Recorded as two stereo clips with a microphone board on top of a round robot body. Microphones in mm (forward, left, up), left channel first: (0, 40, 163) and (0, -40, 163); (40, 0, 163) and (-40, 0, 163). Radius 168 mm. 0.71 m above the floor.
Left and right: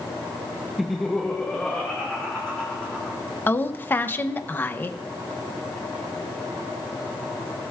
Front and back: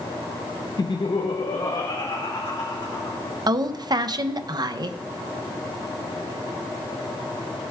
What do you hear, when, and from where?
0.8 s laughter: 5° right, 0.6 m; by 3.2 s 15° left, 3.5 m
3.5 s a woman speaking: 155° left, 0.9 m